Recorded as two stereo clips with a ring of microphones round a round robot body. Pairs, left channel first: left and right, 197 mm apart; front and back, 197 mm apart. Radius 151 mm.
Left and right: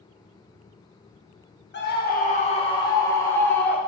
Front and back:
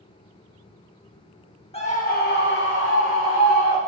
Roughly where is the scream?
Ahead left.